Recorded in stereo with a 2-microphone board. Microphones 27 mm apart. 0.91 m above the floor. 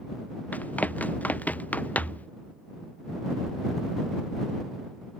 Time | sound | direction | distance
0.5 | running footsteps | 85° left | ?